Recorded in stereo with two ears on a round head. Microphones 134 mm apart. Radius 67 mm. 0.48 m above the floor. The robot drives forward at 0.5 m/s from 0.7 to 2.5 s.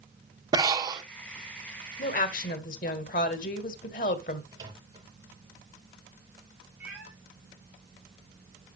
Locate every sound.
0.5 s breathing: 25° right (ahead or behind), 0.9 m
2.0 s a woman speaking: 60° left (ahead or behind), 1.6 m
4.5 s a microwave: 25° right (ahead or behind), 6.5 m
6.8 s a cat meowing: 10° right (ahead or behind), 5 m